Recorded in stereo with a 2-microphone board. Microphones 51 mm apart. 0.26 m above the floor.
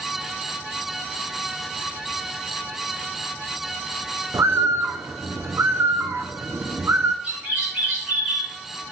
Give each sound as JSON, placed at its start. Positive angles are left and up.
{"t": 4.3, "sound": "a bird", "side_deg": -70, "distance_m": 0.8}
{"t": 7.2, "sound": "a bird", "side_deg": -40, "distance_m": 4.0}